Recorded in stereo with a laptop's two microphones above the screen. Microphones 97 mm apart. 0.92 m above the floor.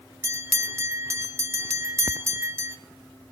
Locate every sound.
0.2 s a bell: 30° right (ahead or behind), 0.8 m